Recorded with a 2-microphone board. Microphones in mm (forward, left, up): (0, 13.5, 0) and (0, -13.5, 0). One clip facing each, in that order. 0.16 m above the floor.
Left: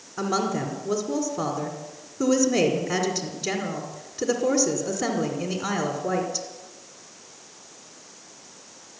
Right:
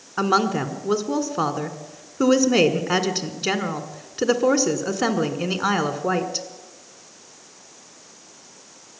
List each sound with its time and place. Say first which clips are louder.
0.2 s a woman speaking: right 5 dB; 45° right (ahead or behind), 1.4 m